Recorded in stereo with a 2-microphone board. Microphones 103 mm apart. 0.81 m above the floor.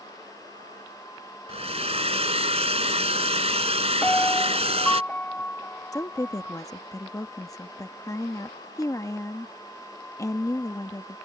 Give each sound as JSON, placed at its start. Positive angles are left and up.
{"t": 1.5, "sound": "a hair dryer", "side_deg": -85}
{"t": 4.0, "sound": "a piano", "side_deg": 15}
{"t": 5.9, "sound": "a woman speaking", "side_deg": 35}